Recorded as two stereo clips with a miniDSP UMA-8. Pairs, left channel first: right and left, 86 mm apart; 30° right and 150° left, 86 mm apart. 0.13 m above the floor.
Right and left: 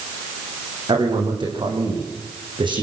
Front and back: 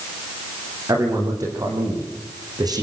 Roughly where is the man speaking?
Left.